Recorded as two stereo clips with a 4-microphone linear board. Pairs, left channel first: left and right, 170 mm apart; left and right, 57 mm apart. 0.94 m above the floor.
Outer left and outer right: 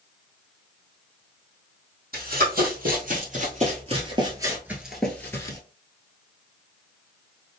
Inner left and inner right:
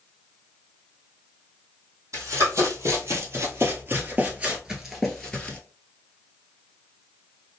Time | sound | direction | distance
2.1 | running footsteps | 65° right (ahead or behind) | 1.9 m